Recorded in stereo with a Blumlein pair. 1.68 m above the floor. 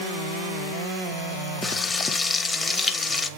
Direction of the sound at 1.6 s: 10° left.